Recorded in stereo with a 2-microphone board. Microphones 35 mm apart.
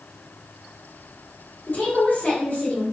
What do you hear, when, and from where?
1.7 s a woman speaking: 55° left (ahead or behind), 2 m